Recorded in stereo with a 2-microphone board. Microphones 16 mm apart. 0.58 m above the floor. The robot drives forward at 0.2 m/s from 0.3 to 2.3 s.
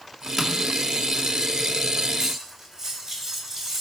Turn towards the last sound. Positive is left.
turn(degrees=-15)  # may be behind; listen again after turning